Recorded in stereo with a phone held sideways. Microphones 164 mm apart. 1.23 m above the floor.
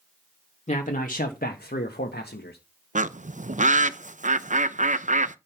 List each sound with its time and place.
0.7 s a man speaking: 45° left (ahead or behind), 1.9 m; by 2.6 s 80° left, 1.6 m
3.0 s a bird: 50° right (ahead or behind), 0.6 m